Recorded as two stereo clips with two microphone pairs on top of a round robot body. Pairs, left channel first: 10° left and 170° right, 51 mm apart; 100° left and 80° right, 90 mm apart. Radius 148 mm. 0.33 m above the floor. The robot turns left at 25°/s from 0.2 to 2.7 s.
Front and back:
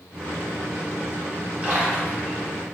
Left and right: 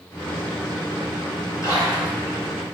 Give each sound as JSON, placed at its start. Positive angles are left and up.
{"t": 1.6, "sound": "a splash", "azimuth_deg": 130, "distance_m": 1.7}